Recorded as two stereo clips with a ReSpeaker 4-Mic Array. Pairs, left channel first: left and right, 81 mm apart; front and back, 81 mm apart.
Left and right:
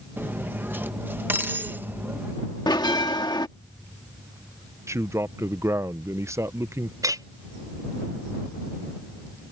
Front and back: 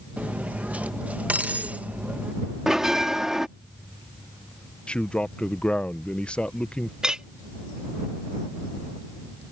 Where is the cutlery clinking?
125° right.